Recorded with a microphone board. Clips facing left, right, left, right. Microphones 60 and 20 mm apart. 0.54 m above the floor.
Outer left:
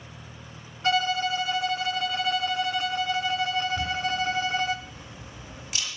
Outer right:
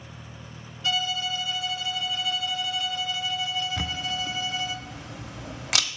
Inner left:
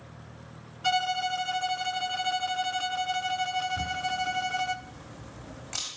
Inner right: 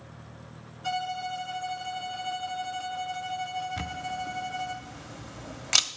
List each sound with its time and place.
0.8 s a violin: 40° left (ahead or behind), 0.6 m
3.8 s a camera shutter: 85° right, 1.2 m